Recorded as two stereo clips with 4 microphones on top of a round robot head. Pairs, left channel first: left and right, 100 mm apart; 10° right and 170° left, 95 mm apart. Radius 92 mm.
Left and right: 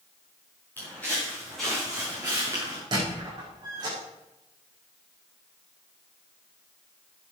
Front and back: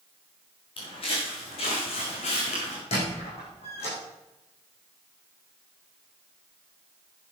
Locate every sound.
0.8 s footsteps: 15° left, 5 m; by 2.8 s 25° right, 4 m
2.9 s a squeak: 30° right, 6.5 m